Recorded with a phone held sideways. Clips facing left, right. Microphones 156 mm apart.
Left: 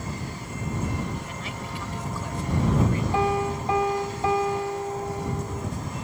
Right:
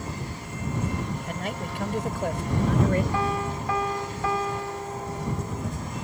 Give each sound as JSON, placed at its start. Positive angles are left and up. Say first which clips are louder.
{"t": 1.3, "sound": "a man speaking", "louder": "right 3 dB", "side_deg": -55}
{"t": 3.1, "sound": "a piano", "louder": "left 3 dB", "side_deg": 20}